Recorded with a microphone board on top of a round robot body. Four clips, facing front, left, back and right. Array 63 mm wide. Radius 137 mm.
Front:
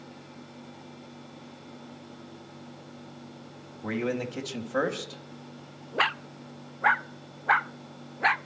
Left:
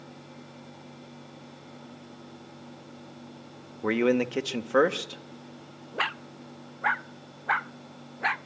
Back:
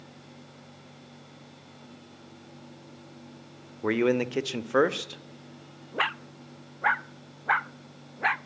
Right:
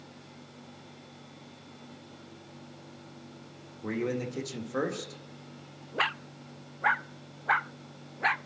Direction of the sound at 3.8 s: 130° left.